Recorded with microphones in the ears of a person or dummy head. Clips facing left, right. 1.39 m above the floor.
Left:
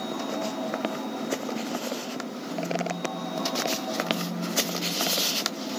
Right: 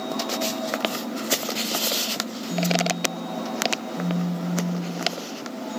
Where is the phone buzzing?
65° right (ahead or behind), 2.5 m.